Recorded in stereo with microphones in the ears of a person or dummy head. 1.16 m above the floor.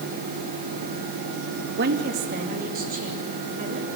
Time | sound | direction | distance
1.8 | a woman speaking | 55° right (ahead or behind) | 1.1 m